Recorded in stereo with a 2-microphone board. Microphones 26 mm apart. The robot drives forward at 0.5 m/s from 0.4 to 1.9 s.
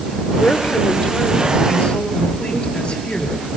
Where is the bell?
I don't hear a bell.